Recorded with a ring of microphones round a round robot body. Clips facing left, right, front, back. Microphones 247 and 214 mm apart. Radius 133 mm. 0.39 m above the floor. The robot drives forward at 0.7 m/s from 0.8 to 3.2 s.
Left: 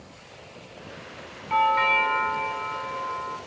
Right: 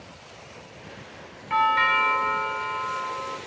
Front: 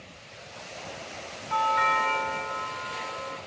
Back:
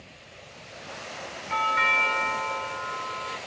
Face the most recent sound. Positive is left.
turn(degrees=-155)